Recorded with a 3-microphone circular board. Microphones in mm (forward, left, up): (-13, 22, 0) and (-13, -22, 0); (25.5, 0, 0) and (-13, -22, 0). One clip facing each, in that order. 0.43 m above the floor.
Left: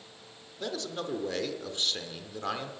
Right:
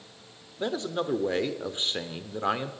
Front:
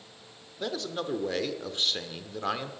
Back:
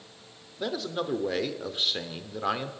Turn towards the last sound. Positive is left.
turn(degrees=-75)